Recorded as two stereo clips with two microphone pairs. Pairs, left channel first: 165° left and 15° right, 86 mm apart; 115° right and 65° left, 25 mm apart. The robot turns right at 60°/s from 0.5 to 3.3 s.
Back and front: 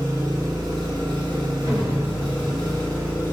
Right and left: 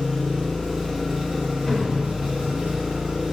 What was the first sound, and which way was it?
An engine running, 45° right.